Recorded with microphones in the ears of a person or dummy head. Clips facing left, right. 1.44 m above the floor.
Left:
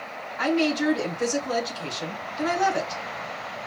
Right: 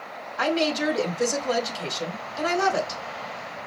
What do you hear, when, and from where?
0.4 s a woman speaking: 85° right, 3.5 m